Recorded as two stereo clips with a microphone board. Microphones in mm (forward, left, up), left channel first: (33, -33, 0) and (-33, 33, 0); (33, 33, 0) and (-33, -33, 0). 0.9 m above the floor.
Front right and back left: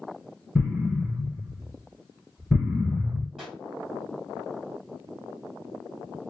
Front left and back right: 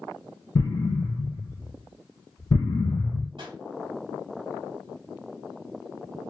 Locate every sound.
0.6 s an explosion: 50° left, 1.0 m
3.4 s a pop: 135° right, 1.1 m